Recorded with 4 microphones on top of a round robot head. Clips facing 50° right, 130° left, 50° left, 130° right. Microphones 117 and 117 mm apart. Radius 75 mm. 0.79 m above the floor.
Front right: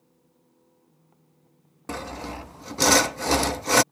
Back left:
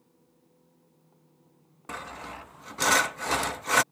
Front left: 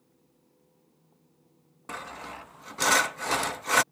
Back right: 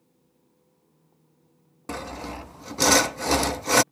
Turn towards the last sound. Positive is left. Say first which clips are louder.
# front right 6 dB, back right 6 dB
turn(degrees=-90)